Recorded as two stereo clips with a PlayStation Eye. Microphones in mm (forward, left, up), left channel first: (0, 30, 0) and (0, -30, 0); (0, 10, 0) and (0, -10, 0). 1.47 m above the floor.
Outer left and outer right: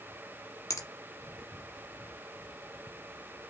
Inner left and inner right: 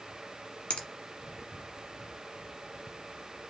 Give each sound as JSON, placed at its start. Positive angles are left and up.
{"t": 0.7, "sound": "a finger snap", "side_deg": 65, "distance_m": 1.2}